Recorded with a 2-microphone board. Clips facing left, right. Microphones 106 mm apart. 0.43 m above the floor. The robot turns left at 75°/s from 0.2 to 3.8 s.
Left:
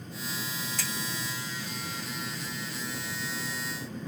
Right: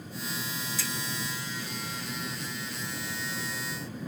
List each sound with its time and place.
0.8 s a finger snap: 55° left (ahead or behind), 1.0 m; by 0.9 s 60° left (ahead or behind), 1.0 m